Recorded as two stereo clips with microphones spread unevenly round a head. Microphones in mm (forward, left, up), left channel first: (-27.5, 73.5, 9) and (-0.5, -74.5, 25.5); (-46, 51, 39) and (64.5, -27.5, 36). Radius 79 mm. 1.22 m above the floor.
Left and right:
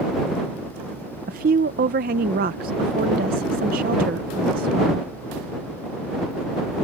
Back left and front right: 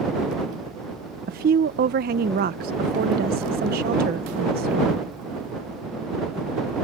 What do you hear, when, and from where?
1.3 s a woman speaking: 45° right